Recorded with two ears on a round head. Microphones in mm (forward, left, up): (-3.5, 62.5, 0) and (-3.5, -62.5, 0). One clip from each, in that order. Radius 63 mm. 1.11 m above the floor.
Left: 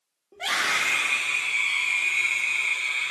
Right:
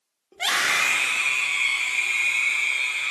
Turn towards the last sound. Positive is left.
turn(degrees=-50)  # may be behind; listen again after turning